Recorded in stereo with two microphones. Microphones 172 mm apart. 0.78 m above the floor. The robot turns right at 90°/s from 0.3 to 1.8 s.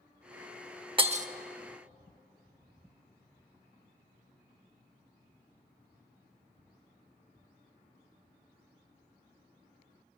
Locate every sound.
1.0 s breaking glass: 30° right (ahead or behind), 0.6 m; by 1.3 s 50° right (ahead or behind), 0.6 m